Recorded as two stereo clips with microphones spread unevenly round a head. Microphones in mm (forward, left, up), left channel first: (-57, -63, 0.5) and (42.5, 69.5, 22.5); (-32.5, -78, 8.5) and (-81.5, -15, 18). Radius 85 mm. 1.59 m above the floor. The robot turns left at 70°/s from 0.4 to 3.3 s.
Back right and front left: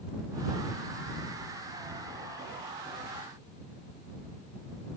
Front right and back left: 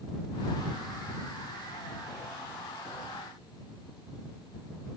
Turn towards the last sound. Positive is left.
No sound to turn to.